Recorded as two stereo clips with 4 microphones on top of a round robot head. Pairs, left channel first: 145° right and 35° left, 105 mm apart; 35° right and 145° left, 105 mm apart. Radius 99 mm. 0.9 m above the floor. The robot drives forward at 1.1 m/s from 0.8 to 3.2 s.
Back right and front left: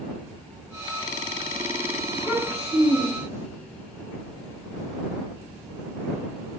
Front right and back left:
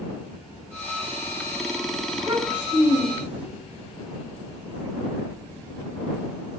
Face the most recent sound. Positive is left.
turn(degrees=-165)